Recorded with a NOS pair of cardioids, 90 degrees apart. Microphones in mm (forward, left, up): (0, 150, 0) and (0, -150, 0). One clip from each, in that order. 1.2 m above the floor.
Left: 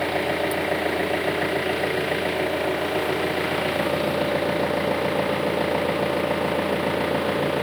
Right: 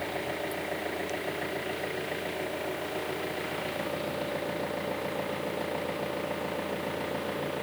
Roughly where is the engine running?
Ahead left.